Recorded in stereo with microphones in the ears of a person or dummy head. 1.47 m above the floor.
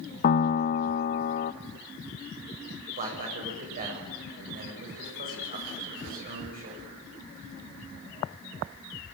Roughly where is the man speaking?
Right.